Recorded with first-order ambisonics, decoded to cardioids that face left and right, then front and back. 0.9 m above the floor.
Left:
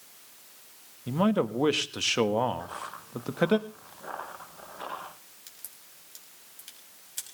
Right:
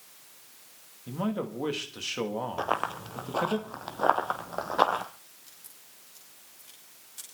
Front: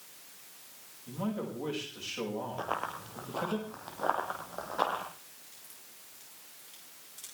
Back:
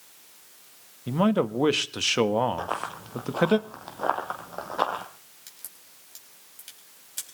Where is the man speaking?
155° left, 1.3 m.